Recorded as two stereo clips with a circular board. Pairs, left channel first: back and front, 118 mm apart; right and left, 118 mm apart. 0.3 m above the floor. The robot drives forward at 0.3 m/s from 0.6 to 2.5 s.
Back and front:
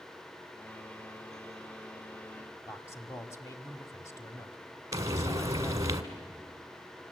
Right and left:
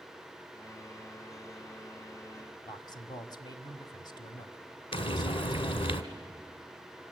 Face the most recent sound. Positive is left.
turn(degrees=-60)